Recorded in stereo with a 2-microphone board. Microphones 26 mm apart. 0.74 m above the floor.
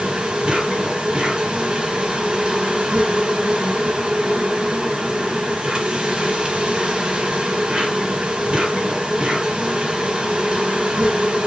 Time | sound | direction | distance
0.0 | an insect | 35° right (ahead or behind) | 3.5 m